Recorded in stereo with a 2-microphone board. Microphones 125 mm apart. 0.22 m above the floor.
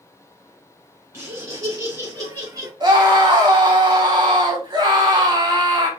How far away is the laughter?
About 2 m.